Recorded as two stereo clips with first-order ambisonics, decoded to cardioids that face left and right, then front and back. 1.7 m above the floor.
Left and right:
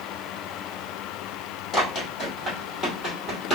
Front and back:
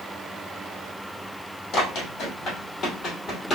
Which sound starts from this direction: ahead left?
Running footsteps, at 1.7 s.